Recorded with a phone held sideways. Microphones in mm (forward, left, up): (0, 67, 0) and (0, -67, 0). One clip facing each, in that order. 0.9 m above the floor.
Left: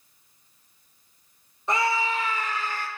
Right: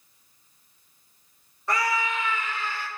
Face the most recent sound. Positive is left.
turn(degrees=45)  # may be behind; listen again after turning